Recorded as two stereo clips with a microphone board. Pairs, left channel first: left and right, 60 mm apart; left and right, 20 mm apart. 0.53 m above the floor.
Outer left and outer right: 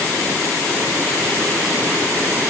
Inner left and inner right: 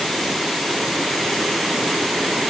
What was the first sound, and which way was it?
Only background noise.